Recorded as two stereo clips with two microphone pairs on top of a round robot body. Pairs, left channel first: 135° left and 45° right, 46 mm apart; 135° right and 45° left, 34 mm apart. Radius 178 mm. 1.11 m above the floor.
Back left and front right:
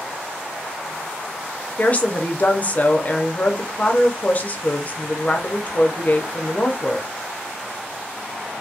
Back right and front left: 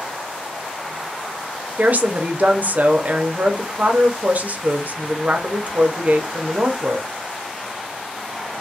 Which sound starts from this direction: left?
A woman speaking, at 1.8 s.